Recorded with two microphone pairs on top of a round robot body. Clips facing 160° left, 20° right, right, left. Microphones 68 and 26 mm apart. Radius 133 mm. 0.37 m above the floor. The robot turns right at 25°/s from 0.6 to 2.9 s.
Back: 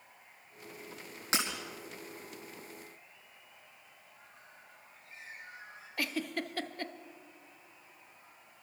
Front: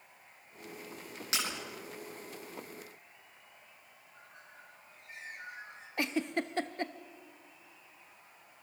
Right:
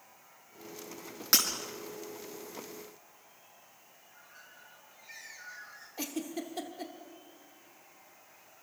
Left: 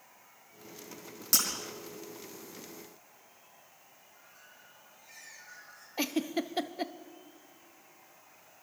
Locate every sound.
1.3 s breaking glass: 140° right, 4.5 m; by 1.5 s 135° right, 4.5 m
4.0 s a bird: 30° right, 6 m
6.0 s a giggle: 30° left, 1.0 m